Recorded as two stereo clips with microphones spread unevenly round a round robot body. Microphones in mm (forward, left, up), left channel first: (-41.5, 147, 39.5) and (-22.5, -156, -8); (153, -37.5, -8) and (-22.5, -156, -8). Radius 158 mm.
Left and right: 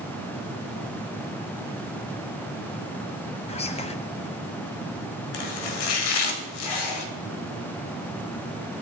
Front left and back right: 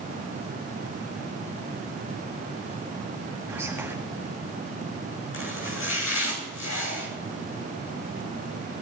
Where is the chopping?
90° left, 2 m.